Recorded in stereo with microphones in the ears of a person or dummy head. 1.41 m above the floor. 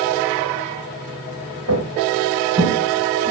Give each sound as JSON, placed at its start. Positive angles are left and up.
{"t": 1.7, "sound": "footsteps", "side_deg": -75, "distance_m": 5.0}